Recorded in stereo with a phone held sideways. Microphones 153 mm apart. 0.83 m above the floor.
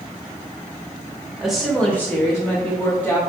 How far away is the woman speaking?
About 1.0 m.